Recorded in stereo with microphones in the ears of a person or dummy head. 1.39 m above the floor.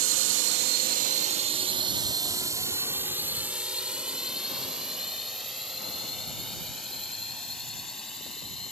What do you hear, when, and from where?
0.0 s a drone: 75° right (ahead or behind); by 8.7 s 5° left (ahead or behind)